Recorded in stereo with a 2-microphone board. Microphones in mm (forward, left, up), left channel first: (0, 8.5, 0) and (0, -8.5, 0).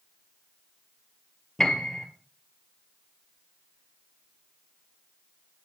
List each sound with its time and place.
1.6 s a piano: 35° left (ahead or behind), 1.7 m